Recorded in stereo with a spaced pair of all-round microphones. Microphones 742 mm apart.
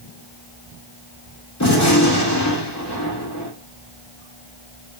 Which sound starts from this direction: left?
A gunshot, at 1.6 s.